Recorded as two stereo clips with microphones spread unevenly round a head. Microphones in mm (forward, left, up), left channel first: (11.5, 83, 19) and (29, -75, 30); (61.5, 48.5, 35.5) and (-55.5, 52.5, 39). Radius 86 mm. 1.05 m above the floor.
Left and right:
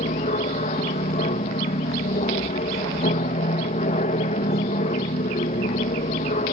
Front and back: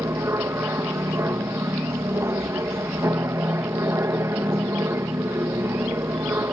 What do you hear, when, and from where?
0.0 s an aircraft: 120° left